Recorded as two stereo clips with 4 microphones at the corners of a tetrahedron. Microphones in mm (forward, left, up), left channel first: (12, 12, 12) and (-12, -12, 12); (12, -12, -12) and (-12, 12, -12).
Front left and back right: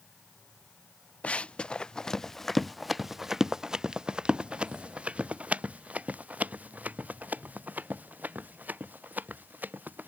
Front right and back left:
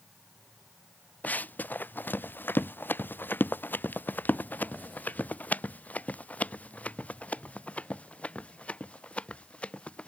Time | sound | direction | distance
1.2 | running footsteps | 10° right | ?